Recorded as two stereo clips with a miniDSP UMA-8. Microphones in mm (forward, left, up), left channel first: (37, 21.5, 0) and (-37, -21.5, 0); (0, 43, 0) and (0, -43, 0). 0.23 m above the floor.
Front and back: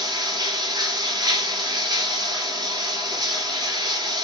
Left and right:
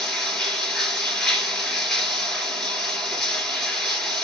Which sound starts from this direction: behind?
Running water, at 0.0 s.